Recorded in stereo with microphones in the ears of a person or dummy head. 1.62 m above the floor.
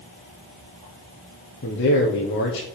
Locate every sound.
1.6 s a man speaking: 65° left (ahead or behind), 1.2 m